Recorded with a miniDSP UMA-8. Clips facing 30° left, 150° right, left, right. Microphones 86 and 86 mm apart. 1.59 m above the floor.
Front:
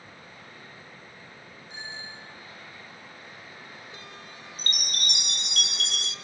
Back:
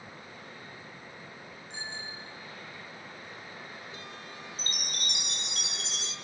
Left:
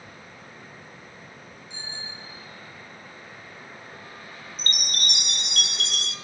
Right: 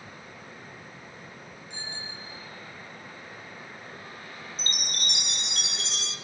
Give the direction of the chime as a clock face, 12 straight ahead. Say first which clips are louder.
Front 6 dB, left 5 dB; 10 o'clock.